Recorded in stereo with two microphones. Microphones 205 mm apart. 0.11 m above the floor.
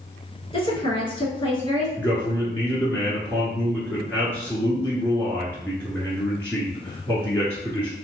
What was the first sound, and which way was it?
A woman speaking, 25° left (ahead or behind).